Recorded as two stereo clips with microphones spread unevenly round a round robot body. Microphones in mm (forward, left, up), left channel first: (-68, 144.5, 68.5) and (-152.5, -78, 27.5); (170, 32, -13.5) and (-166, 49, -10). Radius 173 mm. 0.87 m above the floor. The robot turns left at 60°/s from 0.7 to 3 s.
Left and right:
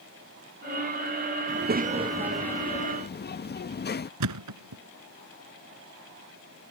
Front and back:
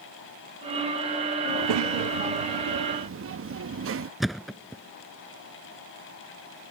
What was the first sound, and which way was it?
A child speaking, 145° right.